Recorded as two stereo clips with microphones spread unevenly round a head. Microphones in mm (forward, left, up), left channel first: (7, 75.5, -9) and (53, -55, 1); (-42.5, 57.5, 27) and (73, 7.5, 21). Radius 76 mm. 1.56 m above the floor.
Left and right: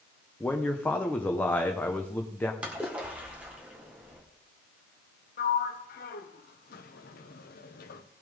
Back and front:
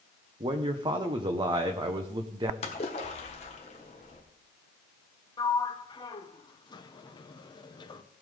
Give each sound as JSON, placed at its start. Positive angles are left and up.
{"t": 0.4, "sound": "a man speaking", "azimuth_deg": 30, "distance_m": 1.0}
{"t": 2.6, "sound": "a splash", "azimuth_deg": -155, "distance_m": 1.6}
{"t": 5.4, "sound": "a sliding door", "azimuth_deg": 100, "distance_m": 0.9}